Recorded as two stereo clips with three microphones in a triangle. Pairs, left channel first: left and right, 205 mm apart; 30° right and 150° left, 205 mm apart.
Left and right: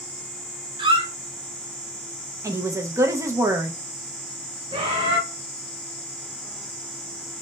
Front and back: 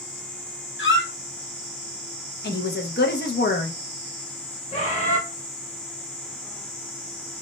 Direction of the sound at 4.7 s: 45° right.